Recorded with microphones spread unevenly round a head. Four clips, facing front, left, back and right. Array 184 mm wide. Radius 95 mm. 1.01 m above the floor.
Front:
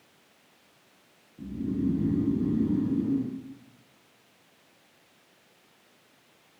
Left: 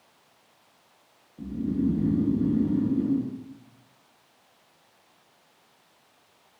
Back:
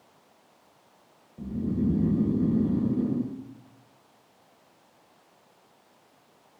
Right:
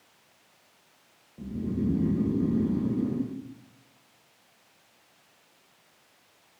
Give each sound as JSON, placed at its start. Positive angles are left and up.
{"t": 1.4, "sound": "snoring", "azimuth_deg": -160, "distance_m": 1.2}